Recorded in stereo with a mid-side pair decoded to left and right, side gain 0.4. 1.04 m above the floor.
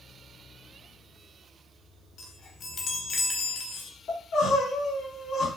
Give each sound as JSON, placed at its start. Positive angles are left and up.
{"t": 2.2, "sound": "a chime", "azimuth_deg": 60, "distance_m": 1.0}
{"t": 4.1, "sound": "crying", "azimuth_deg": 70, "distance_m": 2.0}